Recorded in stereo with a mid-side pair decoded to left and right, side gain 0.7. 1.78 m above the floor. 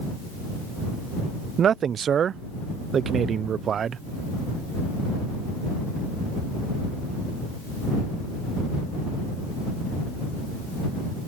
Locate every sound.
1.6 s a man speaking: 35° right